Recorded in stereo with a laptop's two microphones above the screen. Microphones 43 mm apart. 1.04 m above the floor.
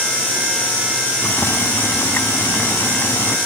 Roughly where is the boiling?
Left.